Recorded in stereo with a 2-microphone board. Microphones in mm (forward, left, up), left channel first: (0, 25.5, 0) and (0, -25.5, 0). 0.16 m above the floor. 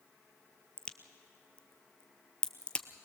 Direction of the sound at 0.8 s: 20° left (ahead or behind).